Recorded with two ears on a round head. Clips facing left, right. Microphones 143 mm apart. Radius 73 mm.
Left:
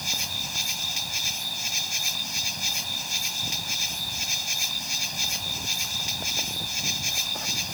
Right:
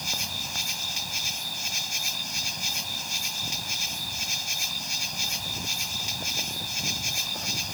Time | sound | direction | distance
0.0 | an insect | centre (ahead or behind) | ?